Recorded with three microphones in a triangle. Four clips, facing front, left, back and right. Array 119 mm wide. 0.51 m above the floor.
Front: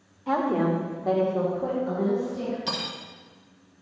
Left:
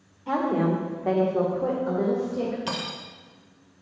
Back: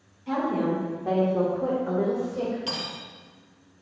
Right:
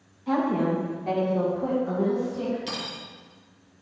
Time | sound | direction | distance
0.3 | a woman speaking | 20° left | 1.8 m
2.7 | cutlery clinking | 70° left | 1.0 m